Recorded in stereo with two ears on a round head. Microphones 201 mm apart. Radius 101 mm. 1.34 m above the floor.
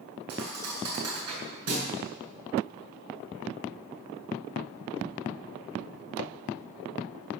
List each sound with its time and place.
0.3 s a thud: 80° right, 7 m